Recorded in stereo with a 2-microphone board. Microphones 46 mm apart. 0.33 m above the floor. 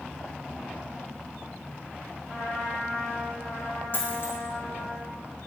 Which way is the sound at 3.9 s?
50° left (ahead or behind).